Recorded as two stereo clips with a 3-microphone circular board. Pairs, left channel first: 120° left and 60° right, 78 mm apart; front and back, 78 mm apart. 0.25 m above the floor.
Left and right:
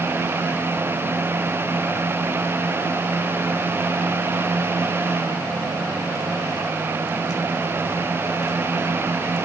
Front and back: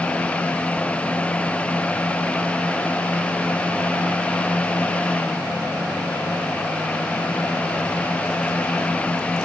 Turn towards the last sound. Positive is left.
No sound to turn to.